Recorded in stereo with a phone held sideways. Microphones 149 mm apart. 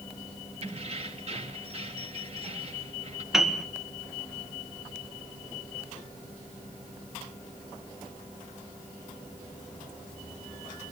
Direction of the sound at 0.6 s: 50° right (ahead or behind).